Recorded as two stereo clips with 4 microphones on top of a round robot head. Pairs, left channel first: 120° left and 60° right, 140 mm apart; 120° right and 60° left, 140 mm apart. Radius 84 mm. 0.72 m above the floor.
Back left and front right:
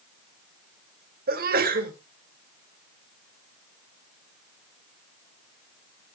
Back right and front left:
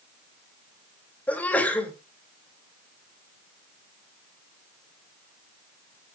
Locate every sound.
1.3 s a sneeze: 45° right, 2.5 m